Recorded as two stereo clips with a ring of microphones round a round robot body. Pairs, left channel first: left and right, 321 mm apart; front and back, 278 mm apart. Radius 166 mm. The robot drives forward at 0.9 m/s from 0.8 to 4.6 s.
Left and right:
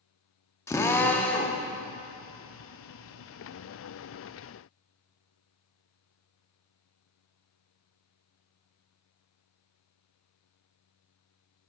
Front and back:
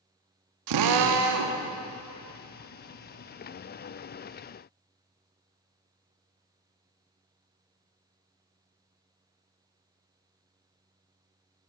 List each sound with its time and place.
0.7 s a drill: 170° left, 0.6 m; by 1.6 s 175° left, 1.3 m